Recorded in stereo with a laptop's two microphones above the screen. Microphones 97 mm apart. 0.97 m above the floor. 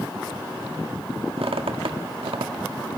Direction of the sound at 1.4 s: 80° right.